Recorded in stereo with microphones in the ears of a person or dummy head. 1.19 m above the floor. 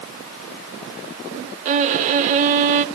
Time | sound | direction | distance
1.6 | a violin | 45° right (ahead or behind) | 0.7 m